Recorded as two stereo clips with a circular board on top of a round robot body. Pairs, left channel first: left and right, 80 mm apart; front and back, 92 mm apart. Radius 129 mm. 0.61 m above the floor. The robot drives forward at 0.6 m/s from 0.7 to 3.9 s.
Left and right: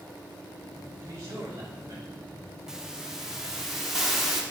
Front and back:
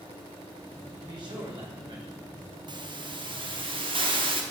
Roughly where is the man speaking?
Behind right.